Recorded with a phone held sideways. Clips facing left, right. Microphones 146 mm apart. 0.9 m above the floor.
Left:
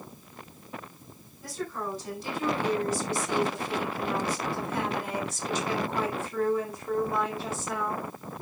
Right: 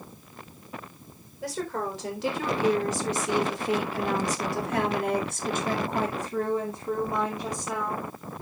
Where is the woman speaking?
70° right (ahead or behind), 4 m; by 8.1 s 5° right (ahead or behind), 3 m.